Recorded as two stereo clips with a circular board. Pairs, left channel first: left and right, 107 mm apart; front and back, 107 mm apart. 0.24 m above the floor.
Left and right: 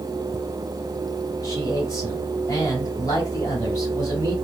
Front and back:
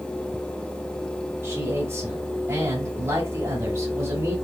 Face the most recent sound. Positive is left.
turn(degrees=130)